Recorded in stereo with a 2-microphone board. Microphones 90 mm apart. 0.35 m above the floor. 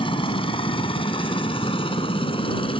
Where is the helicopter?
65° left (ahead or behind).